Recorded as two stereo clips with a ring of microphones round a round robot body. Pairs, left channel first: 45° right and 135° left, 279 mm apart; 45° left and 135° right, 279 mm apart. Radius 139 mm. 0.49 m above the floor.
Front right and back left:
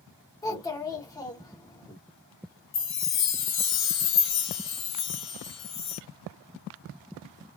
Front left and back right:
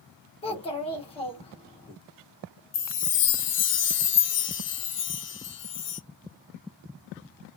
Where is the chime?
Straight ahead, 0.8 m.